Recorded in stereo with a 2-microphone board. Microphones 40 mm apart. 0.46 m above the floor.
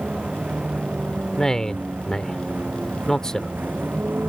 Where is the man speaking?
15° left (ahead or behind).